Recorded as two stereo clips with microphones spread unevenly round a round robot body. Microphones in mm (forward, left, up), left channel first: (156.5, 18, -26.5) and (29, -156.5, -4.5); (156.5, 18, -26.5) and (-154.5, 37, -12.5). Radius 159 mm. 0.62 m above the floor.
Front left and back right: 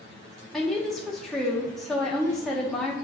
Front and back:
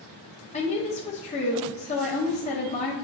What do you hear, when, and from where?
0.5 s a woman speaking: 20° right, 0.5 m